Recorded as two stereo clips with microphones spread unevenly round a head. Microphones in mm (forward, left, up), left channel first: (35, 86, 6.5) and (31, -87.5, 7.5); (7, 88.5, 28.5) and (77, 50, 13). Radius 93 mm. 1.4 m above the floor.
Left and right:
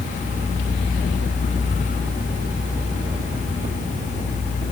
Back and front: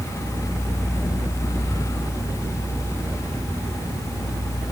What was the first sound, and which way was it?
Only background noise.